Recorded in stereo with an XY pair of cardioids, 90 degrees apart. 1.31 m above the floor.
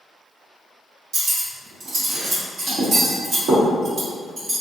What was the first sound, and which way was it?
Cutlery clinking, 70° right.